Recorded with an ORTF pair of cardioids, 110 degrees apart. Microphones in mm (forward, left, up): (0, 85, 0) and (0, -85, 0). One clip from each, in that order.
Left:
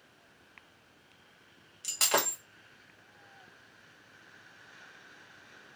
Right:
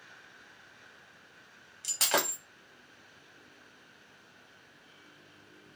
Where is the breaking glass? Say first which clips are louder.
Even; 5° right, 1.1 m.